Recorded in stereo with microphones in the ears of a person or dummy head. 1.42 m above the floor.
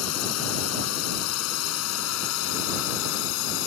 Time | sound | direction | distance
0.0 | a drone | 80° left | ?